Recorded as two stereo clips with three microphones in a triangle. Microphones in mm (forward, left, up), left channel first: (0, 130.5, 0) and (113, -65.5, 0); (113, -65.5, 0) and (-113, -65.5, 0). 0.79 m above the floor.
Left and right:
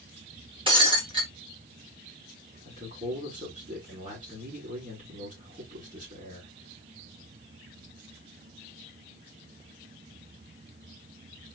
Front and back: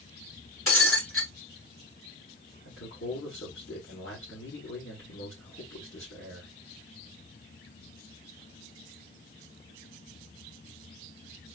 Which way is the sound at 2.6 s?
5° right.